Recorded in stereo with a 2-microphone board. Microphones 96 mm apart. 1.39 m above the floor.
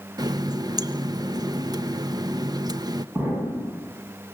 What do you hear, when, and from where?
0.2 s a running tap: 40° right (ahead or behind), 0.7 m
3.1 s an explosion: 20° right (ahead or behind), 8 m